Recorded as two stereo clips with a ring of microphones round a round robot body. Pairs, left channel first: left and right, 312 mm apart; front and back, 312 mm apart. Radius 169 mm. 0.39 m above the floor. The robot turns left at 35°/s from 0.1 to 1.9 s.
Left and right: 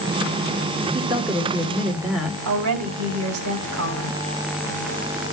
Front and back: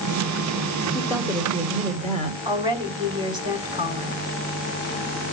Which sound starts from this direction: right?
A woman speaking, at 2.5 s.